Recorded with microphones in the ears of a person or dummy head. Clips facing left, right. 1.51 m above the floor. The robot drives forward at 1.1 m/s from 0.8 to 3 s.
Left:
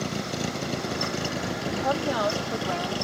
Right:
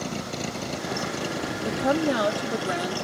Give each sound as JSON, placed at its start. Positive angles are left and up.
{"t": 0.0, "sound": "a vehicle", "side_deg": 10}
{"t": 1.6, "sound": "a woman speaking", "side_deg": -35}